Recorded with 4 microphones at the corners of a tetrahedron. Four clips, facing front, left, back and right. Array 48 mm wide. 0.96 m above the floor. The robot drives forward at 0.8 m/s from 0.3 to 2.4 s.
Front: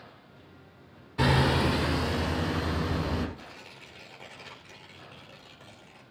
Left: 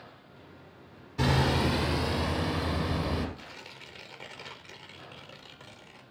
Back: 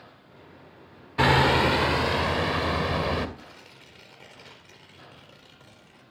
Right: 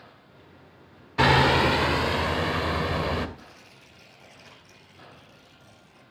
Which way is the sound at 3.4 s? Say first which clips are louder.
Left 4 dB, front 1 dB; 85° left.